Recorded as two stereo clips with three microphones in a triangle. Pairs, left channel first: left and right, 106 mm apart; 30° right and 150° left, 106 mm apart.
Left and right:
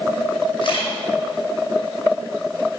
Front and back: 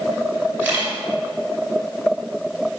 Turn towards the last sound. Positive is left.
turn(degrees=80)